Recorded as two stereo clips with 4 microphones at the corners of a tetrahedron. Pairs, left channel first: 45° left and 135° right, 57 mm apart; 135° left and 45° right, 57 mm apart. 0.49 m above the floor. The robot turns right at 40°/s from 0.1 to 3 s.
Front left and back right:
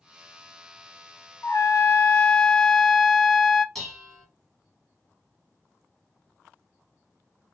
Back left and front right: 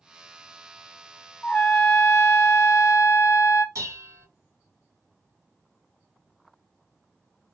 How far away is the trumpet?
About 0.6 m.